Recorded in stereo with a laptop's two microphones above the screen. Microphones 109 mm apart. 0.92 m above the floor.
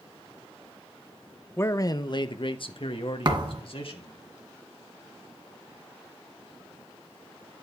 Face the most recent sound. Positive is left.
turn(degrees=-40)  # may be behind; listen again after turning